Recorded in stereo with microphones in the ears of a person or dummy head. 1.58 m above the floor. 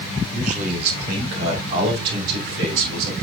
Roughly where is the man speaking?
Right.